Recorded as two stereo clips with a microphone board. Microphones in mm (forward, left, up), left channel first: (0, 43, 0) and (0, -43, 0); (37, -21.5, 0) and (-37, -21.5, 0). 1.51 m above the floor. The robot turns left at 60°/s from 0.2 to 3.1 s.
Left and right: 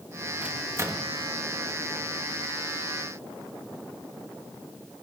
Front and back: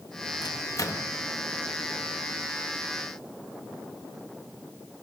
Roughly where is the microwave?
Ahead.